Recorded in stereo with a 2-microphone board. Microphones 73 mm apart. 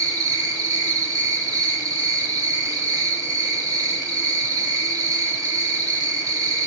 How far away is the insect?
About 1.0 m.